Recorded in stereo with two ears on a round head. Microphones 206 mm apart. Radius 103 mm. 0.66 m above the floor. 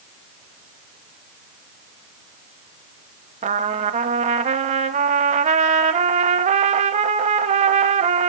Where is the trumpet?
30° right (ahead or behind), 0.6 m.